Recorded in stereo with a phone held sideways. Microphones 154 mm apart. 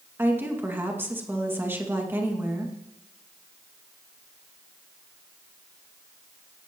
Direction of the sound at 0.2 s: 15° right (ahead or behind).